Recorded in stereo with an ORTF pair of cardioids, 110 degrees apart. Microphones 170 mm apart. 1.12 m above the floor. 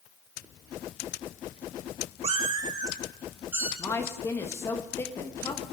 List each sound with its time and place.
2.2 s a cat meowing: 40° right, 1.6 m; by 3.7 s 10° right, 3 m
3.8 s a woman speaking: 15° left, 1.1 m